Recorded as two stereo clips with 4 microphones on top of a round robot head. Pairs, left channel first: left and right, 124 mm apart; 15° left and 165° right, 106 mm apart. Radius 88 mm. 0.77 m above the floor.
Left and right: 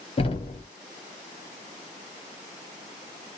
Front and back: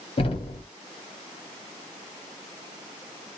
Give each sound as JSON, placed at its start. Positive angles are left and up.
{"t": 0.2, "sound": "knocking", "azimuth_deg": 45, "distance_m": 1.0}